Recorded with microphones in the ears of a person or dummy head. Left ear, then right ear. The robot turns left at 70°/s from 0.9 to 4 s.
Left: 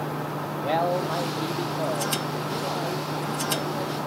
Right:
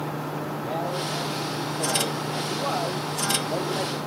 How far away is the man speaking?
About 0.8 m.